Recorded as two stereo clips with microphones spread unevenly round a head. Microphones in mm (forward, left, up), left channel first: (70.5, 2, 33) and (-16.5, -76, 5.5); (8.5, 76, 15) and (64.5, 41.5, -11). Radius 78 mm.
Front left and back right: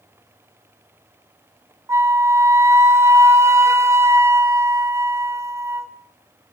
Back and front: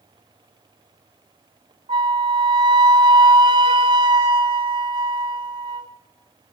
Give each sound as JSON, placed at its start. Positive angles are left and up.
{"t": 1.9, "sound": "a flute", "azimuth_deg": -70, "distance_m": 1.7}